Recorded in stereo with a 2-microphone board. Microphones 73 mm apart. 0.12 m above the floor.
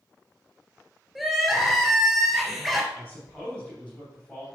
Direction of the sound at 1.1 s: 5° left (ahead or behind).